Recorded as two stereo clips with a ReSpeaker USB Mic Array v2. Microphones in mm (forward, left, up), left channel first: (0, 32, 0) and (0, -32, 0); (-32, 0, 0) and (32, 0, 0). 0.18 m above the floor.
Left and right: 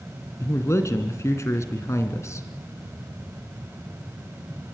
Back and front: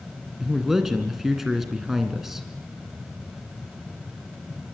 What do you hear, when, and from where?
0.4 s a man speaking: 85° left, 2.5 m